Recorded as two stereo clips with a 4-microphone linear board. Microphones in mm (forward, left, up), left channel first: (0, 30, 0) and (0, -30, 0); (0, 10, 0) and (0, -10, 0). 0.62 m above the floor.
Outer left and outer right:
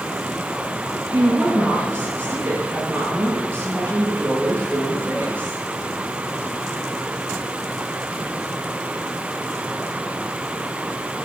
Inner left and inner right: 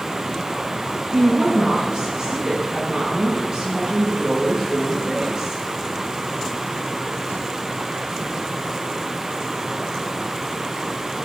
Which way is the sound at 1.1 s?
30° right (ahead or behind).